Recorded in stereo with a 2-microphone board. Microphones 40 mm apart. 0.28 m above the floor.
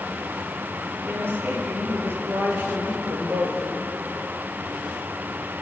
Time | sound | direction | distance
1.0 | a woman speaking | 80° right | 6 m